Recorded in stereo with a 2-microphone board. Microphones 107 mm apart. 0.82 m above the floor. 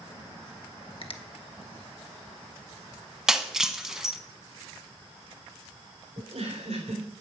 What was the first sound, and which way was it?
A finger snap, 55° left (ahead or behind).